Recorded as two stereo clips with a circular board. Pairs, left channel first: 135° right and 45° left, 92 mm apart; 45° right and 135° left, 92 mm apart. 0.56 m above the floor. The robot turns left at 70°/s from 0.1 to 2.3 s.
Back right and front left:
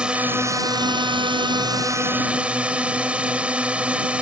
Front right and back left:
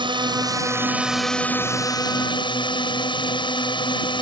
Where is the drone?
125° left; by 4.2 s 30° right.